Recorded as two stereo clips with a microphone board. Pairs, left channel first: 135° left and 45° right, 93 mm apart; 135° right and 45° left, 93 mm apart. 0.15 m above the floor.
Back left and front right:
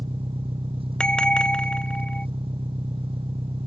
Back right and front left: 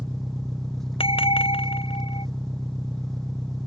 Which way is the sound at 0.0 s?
50° right.